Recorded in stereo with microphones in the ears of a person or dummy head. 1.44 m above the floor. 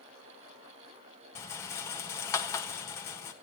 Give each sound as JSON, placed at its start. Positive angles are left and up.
{"t": 1.4, "sound": "a rattle", "side_deg": 15, "distance_m": 1.4}